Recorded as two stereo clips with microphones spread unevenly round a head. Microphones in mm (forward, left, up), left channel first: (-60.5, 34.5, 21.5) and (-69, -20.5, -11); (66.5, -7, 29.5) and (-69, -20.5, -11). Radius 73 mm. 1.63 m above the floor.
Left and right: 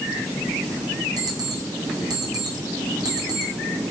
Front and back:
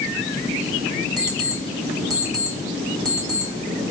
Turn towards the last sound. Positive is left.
turn(degrees=-110)